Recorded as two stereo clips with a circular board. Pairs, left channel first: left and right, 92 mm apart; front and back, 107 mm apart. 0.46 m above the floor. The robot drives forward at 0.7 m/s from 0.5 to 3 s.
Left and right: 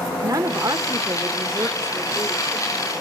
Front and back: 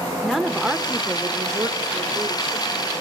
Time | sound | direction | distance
0.2 | a woman speaking | 95° right | 1.3 m